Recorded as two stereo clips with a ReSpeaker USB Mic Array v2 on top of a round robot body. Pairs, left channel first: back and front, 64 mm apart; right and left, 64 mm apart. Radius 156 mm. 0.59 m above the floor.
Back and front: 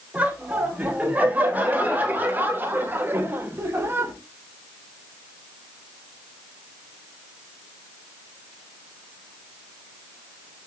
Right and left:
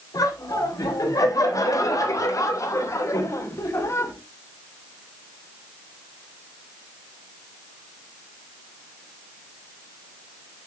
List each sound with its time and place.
0.1 s laughter: 70° right, 4.5 m; by 4.1 s 50° right, 3 m